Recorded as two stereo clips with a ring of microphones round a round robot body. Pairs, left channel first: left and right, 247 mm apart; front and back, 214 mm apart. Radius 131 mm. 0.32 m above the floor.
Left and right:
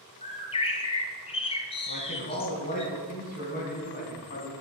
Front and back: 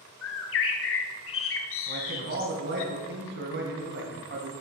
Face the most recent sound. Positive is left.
turn(degrees=145)